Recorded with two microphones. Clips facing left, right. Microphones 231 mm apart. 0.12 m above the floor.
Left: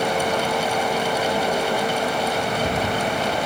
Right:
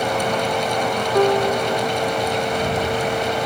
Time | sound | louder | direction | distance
1.1 | a piano | right 6 dB | 80° right | ?